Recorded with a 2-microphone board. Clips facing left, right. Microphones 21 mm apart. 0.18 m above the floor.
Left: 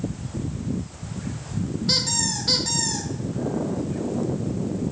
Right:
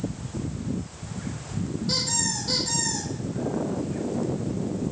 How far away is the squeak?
About 2.5 m.